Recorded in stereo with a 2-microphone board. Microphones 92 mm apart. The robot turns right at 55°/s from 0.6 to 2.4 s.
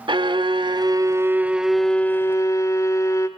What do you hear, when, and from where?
0.1 s a violin: 65° right, 1.3 m; by 3.3 s 35° left, 1.3 m